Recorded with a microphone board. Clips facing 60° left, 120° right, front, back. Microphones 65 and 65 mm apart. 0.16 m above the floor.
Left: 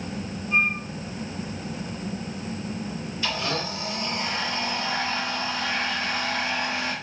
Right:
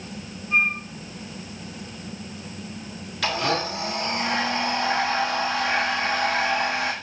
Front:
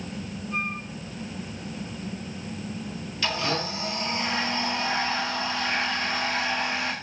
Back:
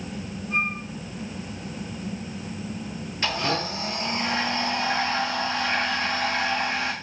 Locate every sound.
0.5 s a flute: 175° left, 3.5 m
3.2 s a blender: 125° right, 6.5 m